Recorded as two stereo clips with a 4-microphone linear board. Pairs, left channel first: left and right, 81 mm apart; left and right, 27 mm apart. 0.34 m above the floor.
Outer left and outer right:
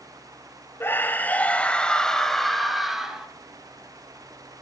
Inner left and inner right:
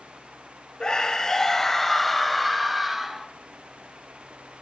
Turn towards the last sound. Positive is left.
turn(degrees=-5)  # may be behind; listen again after turning